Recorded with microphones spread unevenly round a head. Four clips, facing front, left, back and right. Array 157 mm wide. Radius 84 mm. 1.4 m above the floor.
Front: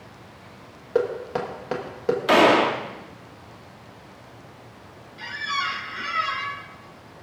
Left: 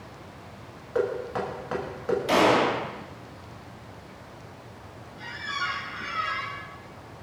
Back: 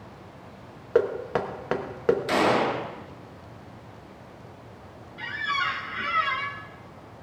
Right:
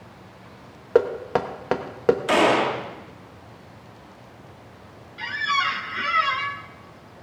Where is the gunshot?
20° right, 1.6 m.